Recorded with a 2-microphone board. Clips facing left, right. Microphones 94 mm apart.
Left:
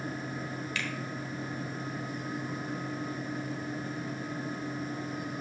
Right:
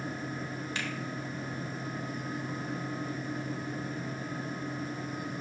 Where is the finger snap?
30° right (ahead or behind), 1.2 m.